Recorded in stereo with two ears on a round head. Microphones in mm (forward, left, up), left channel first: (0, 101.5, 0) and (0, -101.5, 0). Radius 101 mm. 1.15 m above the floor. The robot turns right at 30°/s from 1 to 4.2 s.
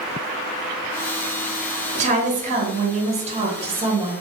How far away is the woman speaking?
About 0.6 m.